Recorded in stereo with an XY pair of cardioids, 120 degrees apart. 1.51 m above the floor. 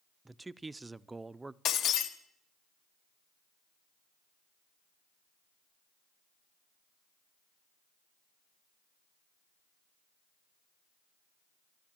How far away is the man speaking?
About 0.5 m.